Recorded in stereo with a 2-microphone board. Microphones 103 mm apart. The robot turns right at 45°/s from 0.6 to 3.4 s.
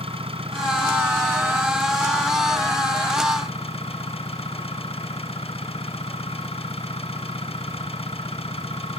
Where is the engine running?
60° right; by 9.0 s 65° left.